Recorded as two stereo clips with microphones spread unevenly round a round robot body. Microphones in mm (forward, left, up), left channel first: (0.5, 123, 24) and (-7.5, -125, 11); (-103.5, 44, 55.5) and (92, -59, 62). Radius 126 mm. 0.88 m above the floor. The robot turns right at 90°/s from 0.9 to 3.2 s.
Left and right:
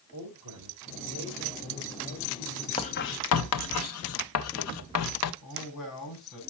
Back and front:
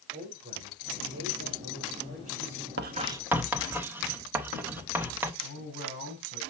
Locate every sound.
0.1 s a man speaking: 95° right, 5 m; by 2.7 s 65° left, 5 m
2.8 s writing: 15° left, 0.8 m; by 5.3 s 55° left, 0.8 m
5.4 s a man speaking: 115° left, 6.5 m